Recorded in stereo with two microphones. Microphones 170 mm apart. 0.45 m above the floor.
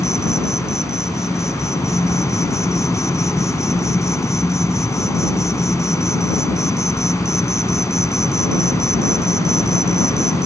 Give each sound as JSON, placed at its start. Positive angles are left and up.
{"t": 0.0, "sound": "an insect", "side_deg": 20}